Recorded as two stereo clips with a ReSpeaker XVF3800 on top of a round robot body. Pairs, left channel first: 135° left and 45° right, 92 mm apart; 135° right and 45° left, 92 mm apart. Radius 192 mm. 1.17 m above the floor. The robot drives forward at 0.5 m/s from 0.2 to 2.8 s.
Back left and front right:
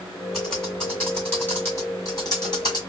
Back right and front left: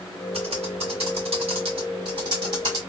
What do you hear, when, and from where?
0.3 s typing on a keyboard: 45° left, 1.9 m; by 2.8 s 90° left, 1.5 m